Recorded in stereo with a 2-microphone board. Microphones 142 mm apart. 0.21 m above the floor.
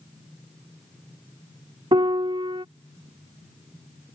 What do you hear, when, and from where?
1.9 s a piano: 35° right (ahead or behind)